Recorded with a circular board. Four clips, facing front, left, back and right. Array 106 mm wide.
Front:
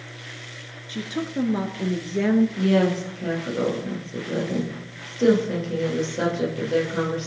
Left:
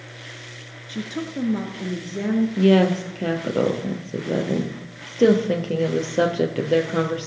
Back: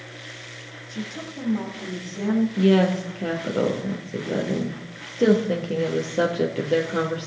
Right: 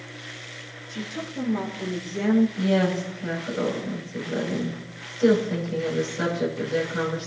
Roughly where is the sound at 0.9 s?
Ahead left.